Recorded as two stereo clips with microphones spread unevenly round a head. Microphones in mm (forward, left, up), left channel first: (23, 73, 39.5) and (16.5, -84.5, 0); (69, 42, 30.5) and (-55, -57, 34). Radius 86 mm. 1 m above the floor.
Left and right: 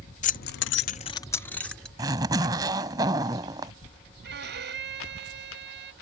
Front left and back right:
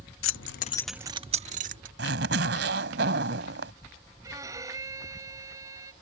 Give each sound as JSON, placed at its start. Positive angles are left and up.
{"t": 0.2, "sound": "keys jangling", "azimuth_deg": 45}
{"t": 2.0, "sound": "a zipper", "azimuth_deg": -170}
{"t": 4.2, "sound": "a violin", "azimuth_deg": -70}